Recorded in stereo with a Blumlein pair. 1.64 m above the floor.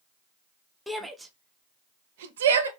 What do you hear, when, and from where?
0.9 s a shout: straight ahead, 1.0 m; by 2.7 s 70° right, 1.0 m